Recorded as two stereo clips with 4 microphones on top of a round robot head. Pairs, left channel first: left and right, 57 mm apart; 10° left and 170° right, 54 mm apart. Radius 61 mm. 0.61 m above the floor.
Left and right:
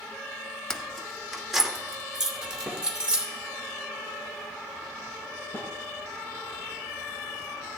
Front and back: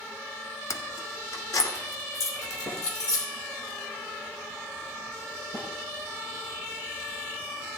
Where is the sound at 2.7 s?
15° left, 7.5 m.